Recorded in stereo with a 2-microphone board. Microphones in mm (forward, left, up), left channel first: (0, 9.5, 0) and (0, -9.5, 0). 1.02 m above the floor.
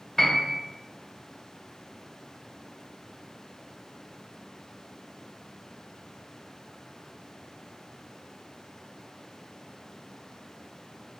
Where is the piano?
25° left (ahead or behind), 0.8 m.